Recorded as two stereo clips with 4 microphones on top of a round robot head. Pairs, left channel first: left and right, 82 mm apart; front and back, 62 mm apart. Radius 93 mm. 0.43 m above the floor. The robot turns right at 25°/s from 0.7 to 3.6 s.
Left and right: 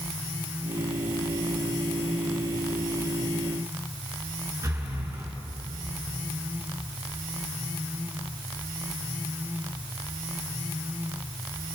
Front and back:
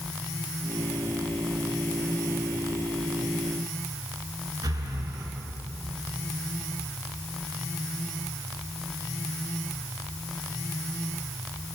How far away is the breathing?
About 5 m.